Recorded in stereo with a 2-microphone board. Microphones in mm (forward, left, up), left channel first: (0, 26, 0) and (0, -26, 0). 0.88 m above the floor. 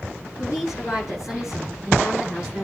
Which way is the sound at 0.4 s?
85° left.